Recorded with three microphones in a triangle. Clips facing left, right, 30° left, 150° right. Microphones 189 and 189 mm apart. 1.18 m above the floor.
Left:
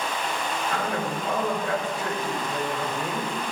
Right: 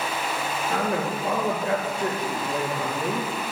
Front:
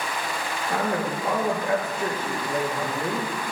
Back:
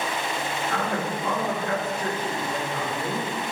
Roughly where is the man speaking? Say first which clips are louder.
Right 4 dB, front 4 dB; ahead right.